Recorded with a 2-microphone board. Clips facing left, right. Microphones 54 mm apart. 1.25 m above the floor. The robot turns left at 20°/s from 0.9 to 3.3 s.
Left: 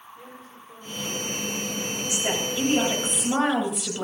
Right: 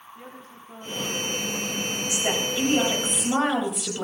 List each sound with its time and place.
0.1 s a woman speaking: 70° right, 3.5 m; by 3.1 s 110° right, 3.5 m
2.1 s a woman speaking: 20° right (ahead or behind), 7.5 m; by 4.0 s 5° left (ahead or behind), 7.5 m